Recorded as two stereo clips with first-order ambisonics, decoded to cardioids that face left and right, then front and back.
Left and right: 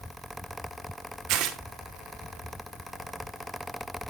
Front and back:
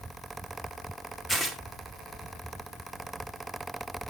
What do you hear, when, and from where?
1.3 s tearing paper: 85° right, 1.6 m